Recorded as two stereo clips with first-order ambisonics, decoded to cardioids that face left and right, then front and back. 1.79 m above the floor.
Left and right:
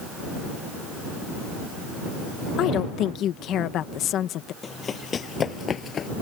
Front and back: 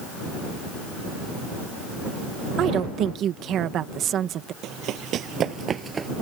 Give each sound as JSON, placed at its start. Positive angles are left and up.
{"t": 2.6, "sound": "a woman speaking", "azimuth_deg": 135}
{"t": 4.6, "sound": "running footsteps", "azimuth_deg": 155}